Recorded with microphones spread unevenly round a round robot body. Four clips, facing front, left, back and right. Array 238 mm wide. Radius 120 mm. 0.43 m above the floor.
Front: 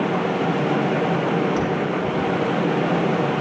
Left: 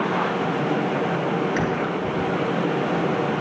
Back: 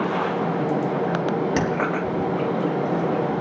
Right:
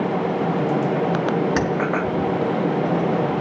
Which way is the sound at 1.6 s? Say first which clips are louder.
Right 2 dB, even; 140° right.